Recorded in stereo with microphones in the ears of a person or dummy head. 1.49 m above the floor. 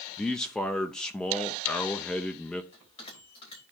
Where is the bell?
40° left (ahead or behind), 4.5 m.